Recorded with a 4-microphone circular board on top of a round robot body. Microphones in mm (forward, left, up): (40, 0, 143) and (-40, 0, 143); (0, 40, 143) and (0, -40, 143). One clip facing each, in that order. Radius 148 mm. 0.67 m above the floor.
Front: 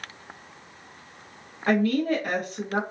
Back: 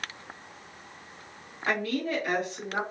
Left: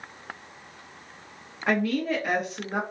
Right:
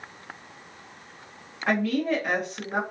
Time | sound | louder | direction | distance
1.7 | a woman speaking | front 6 dB, right 1 dB | 5° left | 1.1 m